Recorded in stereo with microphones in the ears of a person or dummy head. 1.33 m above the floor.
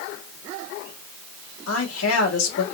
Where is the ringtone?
I don't hear a ringtone.